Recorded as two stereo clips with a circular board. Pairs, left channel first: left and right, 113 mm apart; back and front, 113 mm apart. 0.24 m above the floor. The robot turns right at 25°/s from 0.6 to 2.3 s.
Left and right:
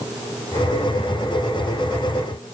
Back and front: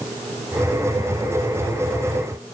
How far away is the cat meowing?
I don't hear a cat meowing.